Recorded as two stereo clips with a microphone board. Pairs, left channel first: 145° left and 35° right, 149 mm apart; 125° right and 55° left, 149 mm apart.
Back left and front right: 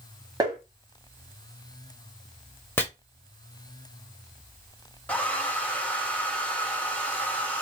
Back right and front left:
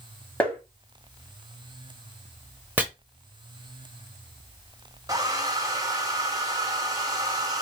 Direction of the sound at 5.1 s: 75° left.